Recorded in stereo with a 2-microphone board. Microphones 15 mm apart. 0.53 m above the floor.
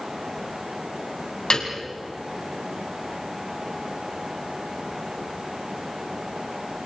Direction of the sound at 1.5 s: 60° left (ahead or behind).